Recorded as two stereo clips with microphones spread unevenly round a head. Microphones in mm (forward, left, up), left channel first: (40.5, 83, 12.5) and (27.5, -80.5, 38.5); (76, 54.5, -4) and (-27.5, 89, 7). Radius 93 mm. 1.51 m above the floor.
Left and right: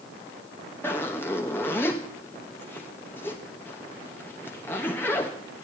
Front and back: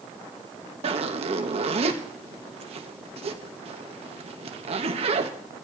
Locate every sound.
0.8 s a zipper: 170° left, 1.1 m